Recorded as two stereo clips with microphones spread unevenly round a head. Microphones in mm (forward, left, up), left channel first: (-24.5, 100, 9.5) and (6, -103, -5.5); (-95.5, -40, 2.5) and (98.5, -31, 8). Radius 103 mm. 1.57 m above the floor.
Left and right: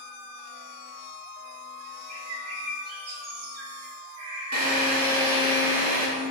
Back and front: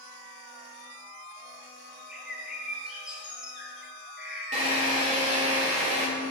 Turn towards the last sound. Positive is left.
turn(degrees=-50)